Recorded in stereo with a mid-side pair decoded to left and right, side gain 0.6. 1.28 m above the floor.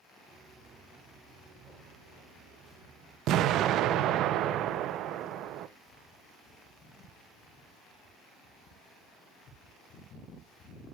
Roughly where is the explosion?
Ahead right.